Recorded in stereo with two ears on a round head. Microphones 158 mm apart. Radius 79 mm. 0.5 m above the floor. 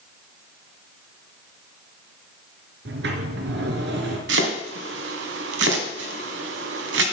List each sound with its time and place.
2.9 s a sliding door: 70° right (ahead or behind), 2.5 m
4.3 s chopping: 75° right (ahead or behind), 2.5 m